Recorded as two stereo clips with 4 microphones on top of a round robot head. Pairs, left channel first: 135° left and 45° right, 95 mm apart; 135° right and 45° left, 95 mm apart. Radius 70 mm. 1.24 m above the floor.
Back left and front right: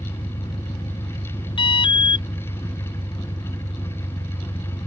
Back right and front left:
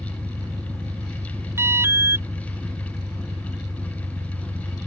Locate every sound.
0.0 s an engine running: 100° left
1.6 s an alarm: 105° left